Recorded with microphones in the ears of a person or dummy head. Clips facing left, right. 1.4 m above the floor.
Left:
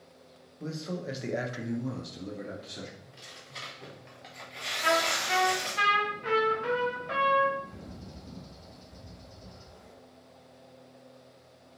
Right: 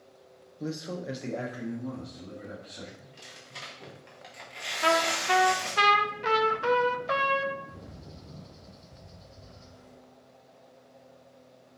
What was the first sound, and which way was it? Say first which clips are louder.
A man speaking: right 1 dB; 20° right (ahead or behind).